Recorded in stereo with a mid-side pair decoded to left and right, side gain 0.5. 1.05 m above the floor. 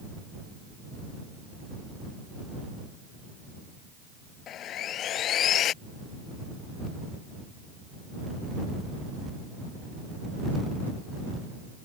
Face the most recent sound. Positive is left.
turn(degrees=60)